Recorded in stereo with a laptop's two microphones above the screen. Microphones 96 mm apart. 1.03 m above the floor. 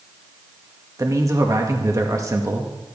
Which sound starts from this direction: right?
A man speaking, at 1.0 s.